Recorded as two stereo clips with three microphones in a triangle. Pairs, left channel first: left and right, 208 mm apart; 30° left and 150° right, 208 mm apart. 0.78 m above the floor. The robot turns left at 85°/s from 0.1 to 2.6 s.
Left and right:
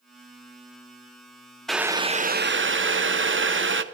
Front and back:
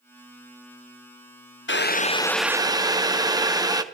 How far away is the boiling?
About 0.6 m.